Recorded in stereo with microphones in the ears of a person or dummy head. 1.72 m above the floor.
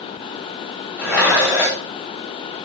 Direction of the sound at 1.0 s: 15° right (ahead or behind).